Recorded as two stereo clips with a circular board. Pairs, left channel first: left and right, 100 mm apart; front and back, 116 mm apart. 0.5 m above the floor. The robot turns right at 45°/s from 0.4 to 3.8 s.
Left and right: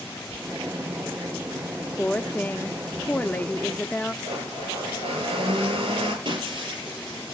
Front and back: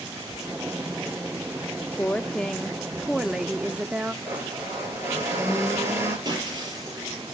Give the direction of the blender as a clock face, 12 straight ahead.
4 o'clock.